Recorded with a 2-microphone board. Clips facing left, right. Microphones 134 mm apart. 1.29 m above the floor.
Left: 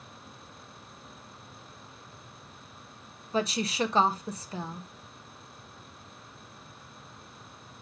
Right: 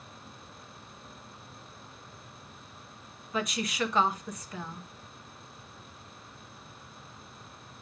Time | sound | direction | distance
3.3 | a woman speaking | 30° left (ahead or behind) | 0.9 m